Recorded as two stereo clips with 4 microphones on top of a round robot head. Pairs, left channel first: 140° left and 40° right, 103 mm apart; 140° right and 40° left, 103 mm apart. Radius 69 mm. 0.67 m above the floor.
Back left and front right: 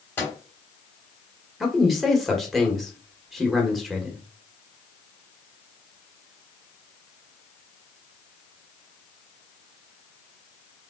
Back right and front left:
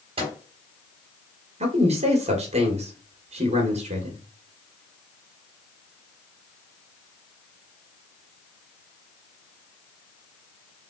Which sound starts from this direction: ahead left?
A man speaking, at 1.6 s.